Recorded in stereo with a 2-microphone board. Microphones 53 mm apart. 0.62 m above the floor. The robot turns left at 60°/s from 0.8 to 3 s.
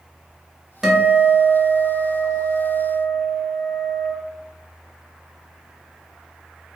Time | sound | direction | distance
0.8 | a guitar | 175° right | 0.9 m